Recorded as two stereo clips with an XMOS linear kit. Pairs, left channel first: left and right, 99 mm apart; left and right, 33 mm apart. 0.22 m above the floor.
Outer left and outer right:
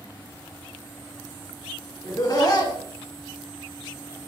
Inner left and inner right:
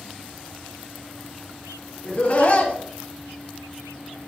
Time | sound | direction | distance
2.0 | laughter | 40° left (ahead or behind) | 2.5 m